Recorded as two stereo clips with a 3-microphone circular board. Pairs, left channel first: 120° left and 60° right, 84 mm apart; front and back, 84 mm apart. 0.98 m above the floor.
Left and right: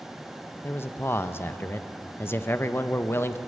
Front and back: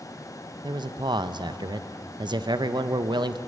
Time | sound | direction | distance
0.6 | a man speaking | 175° left | 0.5 m